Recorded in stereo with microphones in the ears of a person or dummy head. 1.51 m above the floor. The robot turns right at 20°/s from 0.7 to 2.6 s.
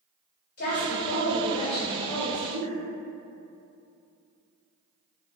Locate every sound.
0.6 s a woman speaking: 125° left, 1.7 m; by 2.8 s 165° left, 1.7 m